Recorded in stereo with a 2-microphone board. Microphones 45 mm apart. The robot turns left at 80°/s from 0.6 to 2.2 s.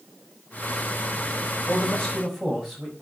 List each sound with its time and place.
1.7 s a man speaking: 40° left, 6 m; by 2.9 s straight ahead, 6 m